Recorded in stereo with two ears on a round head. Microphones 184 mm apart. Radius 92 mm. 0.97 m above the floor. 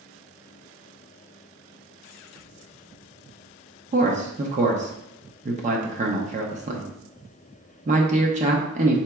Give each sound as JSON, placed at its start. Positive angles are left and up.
{"t": 3.9, "sound": "a man speaking", "side_deg": -35, "distance_m": 0.7}